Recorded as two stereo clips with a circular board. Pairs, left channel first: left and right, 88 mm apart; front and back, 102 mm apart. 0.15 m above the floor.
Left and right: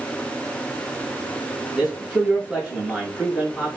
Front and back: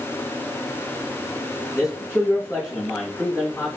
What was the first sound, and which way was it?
A man speaking, 15° right.